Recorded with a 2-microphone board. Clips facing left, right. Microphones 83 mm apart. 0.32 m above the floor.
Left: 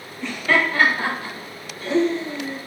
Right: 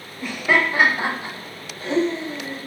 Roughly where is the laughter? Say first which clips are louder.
Even; centre.